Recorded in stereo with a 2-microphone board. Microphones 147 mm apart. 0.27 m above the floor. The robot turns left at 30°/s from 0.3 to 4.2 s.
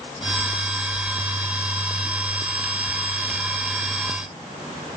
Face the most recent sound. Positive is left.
No sound to turn to.